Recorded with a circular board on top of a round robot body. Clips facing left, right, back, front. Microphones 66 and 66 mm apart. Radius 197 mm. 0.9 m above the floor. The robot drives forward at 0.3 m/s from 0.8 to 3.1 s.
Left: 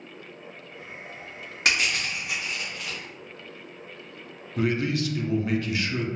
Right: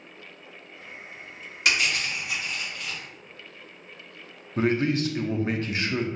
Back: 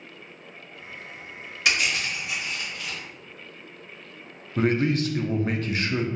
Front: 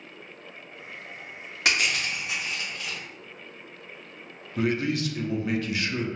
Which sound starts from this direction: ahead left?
Crushing, at 1.6 s.